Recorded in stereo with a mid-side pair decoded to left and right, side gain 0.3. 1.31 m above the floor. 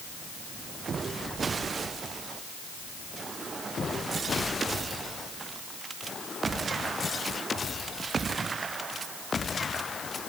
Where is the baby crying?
No baby crying in this recording.